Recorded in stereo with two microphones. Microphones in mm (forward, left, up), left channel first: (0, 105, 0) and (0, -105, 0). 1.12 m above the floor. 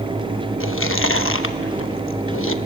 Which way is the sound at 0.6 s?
70° left (ahead or behind).